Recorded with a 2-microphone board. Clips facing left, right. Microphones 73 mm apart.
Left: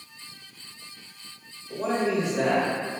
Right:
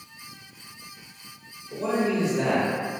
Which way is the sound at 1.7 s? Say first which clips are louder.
Even; 55° left (ahead or behind).